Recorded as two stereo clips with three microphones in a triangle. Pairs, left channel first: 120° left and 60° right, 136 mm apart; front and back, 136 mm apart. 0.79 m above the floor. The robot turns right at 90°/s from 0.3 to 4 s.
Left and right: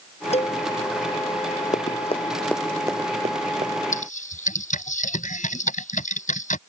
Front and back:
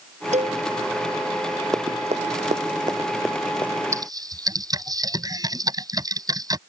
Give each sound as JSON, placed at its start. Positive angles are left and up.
{"t": 0.3, "sound": "a cowbell", "azimuth_deg": 150}
{"t": 1.7, "sound": "running footsteps", "azimuth_deg": 115}
{"t": 3.9, "sound": "typing on a keyboard", "azimuth_deg": 115}